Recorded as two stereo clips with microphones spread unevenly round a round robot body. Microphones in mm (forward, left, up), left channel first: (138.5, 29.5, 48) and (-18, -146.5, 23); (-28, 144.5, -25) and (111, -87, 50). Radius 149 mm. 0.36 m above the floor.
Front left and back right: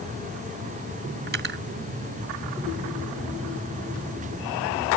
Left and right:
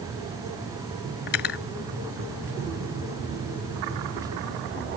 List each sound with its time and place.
1.3 s cutlery clinking: 175° left